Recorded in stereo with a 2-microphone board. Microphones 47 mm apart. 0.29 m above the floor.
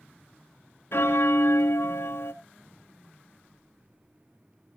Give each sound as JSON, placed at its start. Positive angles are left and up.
{"t": 0.9, "sound": "a bell", "side_deg": 65, "distance_m": 0.6}